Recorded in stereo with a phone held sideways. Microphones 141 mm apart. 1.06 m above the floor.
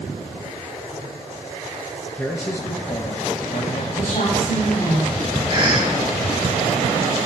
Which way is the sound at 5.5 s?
40° right (ahead or behind).